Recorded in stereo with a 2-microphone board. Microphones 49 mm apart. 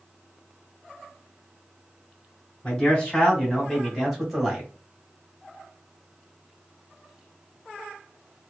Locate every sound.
2.6 s a man speaking: 20° left (ahead or behind), 1.7 m; by 4.7 s 10° right (ahead or behind), 1.3 m